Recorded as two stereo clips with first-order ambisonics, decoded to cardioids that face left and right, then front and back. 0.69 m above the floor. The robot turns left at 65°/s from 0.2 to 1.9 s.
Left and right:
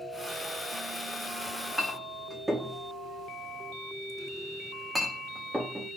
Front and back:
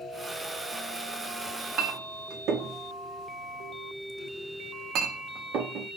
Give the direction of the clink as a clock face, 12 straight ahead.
5 o'clock.